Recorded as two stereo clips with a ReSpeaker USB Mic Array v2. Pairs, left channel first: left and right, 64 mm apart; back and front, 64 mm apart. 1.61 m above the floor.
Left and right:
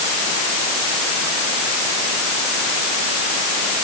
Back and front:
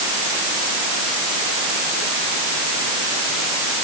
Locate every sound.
Only background noise.